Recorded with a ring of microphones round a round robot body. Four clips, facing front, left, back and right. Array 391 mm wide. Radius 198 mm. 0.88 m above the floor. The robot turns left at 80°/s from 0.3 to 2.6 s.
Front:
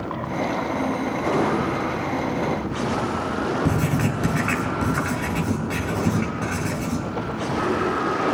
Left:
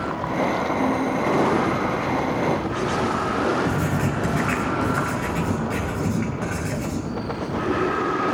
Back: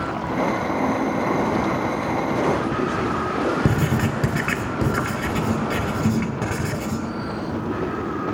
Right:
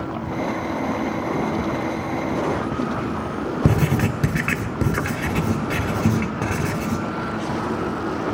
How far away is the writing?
About 1.8 m.